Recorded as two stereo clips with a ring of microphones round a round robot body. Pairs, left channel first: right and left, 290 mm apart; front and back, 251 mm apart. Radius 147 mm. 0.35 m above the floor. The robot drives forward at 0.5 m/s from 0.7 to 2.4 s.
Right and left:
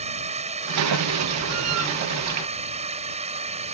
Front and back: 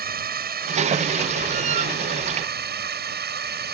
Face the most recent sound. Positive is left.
turn(degrees=150)